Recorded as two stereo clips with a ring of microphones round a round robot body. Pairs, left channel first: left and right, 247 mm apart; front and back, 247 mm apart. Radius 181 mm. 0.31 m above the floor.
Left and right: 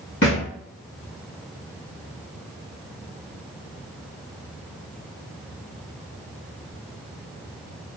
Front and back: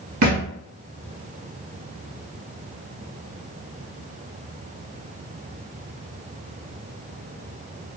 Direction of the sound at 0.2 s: 150° left.